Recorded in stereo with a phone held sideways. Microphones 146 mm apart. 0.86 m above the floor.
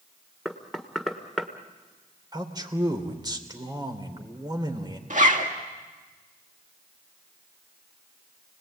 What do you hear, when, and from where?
0.5 s knocking: centre (ahead or behind), 1.5 m
2.3 s a man speaking: 30° right (ahead or behind), 3 m
5.1 s a zipper: 60° right (ahead or behind), 1.9 m